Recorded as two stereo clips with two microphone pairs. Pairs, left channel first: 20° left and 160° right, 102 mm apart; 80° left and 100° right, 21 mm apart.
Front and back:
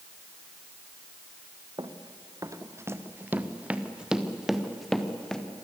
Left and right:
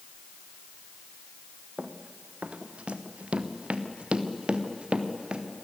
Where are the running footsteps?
115° right, 1.8 m; by 5.4 s 65° right, 3 m.